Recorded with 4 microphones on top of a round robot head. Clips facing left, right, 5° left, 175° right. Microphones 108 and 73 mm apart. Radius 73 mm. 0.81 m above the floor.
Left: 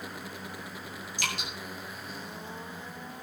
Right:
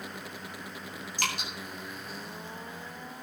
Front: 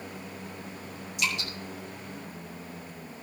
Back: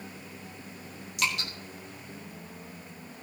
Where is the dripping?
140° right, 3.5 m.